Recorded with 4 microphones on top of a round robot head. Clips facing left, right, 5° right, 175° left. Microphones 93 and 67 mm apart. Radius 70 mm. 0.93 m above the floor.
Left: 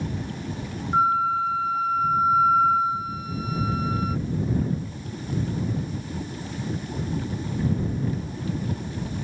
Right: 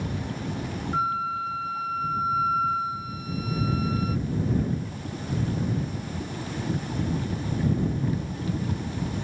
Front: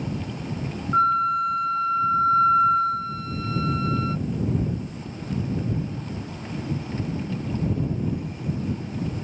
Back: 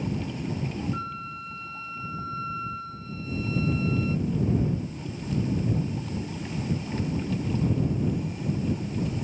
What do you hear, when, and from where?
0.9 s a flute: 25° left